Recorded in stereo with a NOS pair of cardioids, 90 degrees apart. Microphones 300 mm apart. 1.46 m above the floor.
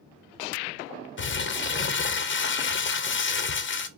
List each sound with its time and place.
1.2 s crumpling: 40° left, 1.2 m